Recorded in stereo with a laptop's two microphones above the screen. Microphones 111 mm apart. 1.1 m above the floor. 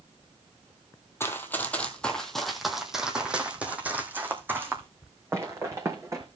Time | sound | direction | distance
1.2 | running footsteps | 20° left (ahead or behind) | 1.4 m